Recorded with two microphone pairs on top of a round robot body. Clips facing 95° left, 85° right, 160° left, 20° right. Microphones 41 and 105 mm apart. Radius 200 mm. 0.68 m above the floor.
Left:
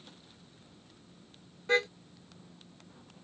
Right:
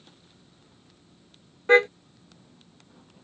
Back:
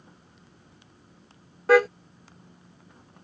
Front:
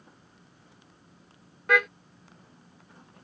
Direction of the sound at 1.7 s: 145° right.